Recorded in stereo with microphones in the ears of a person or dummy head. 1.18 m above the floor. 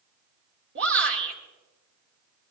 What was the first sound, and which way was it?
A shout, 60° right (ahead or behind).